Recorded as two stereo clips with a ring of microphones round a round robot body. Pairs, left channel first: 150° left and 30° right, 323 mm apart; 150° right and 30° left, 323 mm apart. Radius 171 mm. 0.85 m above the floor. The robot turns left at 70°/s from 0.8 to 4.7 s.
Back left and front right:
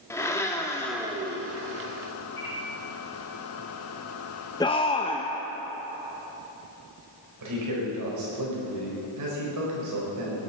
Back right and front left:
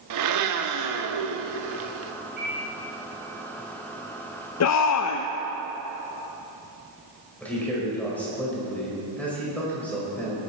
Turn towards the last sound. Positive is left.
turn(degrees=-65)